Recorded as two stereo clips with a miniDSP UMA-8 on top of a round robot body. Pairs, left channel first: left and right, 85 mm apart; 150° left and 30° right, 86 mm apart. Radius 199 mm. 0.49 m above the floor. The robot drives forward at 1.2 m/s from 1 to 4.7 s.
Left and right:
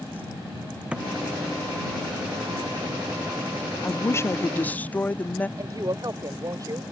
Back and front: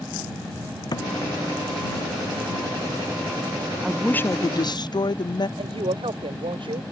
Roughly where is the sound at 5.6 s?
Ahead right.